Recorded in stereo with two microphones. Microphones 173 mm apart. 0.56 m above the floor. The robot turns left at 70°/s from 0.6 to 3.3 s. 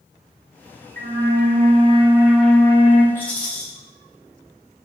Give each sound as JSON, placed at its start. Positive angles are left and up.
{"t": 1.0, "sound": "a flute", "azimuth_deg": -80, "distance_m": 0.6}
{"t": 3.1, "sound": "a rattle", "side_deg": 15, "distance_m": 1.1}